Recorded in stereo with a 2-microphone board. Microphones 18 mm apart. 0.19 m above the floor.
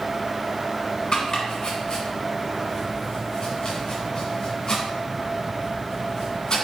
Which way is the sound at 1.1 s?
45° left (ahead or behind).